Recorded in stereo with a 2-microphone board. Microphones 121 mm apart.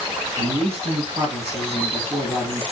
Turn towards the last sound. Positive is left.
turn(degrees=-50)  # may be behind; listen again after turning